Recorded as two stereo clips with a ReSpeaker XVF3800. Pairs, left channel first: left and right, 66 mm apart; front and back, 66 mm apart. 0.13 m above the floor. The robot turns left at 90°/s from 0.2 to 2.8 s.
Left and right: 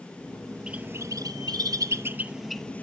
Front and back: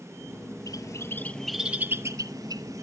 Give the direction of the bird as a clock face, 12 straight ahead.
12 o'clock.